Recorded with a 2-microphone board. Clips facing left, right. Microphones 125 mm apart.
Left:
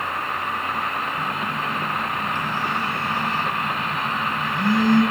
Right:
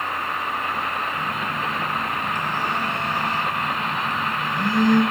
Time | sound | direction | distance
1.1 | a phone buzzing | 15° right (ahead or behind) | 1.2 m